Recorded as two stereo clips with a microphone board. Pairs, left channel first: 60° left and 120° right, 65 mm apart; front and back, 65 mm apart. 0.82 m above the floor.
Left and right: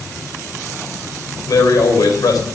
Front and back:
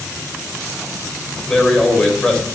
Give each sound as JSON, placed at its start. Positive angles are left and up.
{"t": 1.5, "sound": "a man speaking", "azimuth_deg": 80, "distance_m": 4.0}